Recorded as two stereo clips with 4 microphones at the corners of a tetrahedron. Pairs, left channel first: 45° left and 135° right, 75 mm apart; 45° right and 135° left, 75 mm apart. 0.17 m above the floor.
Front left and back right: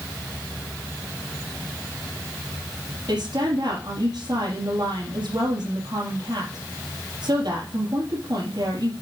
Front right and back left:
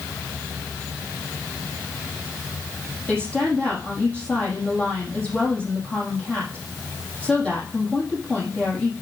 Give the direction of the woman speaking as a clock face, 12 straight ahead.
4 o'clock.